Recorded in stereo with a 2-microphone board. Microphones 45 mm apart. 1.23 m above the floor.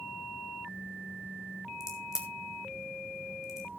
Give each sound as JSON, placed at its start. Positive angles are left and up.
{"t": 1.8, "sound": "a crack", "side_deg": -15, "distance_m": 3.0}